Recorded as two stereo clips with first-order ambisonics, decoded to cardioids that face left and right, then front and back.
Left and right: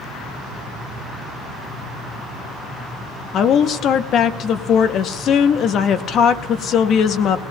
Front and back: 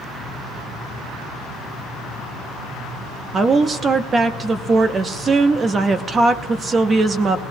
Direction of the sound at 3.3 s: 120° left.